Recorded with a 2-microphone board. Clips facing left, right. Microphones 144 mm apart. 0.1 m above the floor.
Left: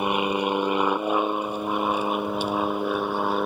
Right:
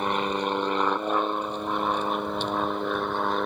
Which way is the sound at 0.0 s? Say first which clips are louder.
Left 3 dB; 10° left (ahead or behind).